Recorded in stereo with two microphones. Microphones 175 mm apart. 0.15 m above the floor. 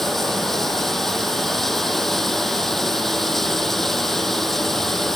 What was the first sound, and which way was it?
Running water, centre (ahead or behind).